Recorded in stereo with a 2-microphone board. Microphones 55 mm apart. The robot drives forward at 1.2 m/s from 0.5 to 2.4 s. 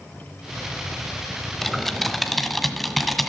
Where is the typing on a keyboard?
5° left (ahead or behind), 1.0 m.